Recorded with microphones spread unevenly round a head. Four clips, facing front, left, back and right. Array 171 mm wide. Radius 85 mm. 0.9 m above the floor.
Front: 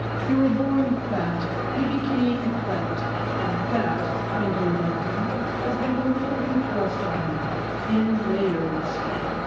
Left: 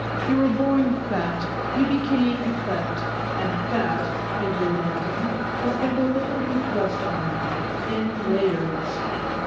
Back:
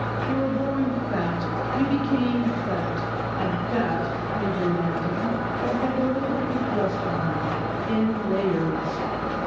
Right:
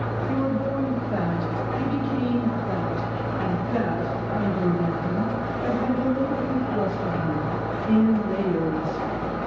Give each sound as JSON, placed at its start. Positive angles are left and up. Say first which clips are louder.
{"t": 0.3, "sound": "a woman speaking", "louder": "left 6 dB, front 5 dB", "azimuth_deg": 70, "distance_m": 0.9}